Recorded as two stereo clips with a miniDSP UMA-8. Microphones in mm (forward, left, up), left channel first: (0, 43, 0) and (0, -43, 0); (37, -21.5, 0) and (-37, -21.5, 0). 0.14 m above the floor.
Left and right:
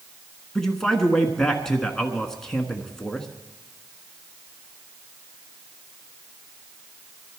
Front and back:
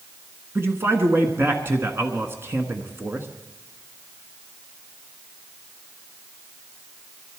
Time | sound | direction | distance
0.6 | a man speaking | 170° left | 1.3 m